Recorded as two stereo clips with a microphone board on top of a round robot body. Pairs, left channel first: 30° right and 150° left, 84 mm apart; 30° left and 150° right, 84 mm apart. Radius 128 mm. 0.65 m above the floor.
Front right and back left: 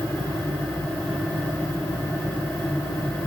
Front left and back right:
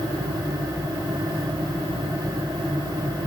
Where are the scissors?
No scissors in this recording.